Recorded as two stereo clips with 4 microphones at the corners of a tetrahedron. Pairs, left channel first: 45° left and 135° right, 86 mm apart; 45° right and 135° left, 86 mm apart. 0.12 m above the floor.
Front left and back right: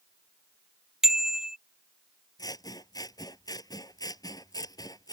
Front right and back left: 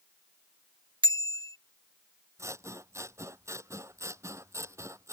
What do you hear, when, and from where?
1.0 s a bicycle bell: 140° left
2.4 s scissors: 85° left